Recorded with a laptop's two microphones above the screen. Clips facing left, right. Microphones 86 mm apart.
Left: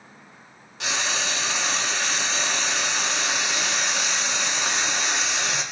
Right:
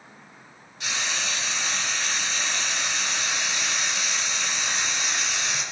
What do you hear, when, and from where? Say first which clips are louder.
0.8 s frying: left 3 dB; 80° left, 1.7 m